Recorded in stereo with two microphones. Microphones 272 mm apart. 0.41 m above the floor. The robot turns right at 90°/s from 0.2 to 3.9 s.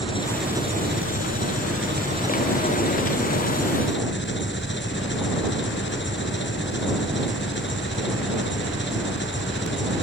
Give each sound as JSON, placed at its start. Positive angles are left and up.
{"t": 0.0, "sound": "an engine running", "azimuth_deg": 160}